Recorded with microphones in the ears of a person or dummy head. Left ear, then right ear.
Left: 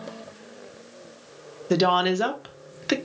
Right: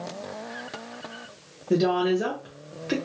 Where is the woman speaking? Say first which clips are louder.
Left 2 dB; 50° left (ahead or behind), 0.6 m.